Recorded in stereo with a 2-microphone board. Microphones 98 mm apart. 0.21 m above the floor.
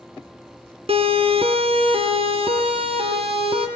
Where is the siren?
70° right (ahead or behind), 4.5 m; by 3.7 s 65° right (ahead or behind), 7 m.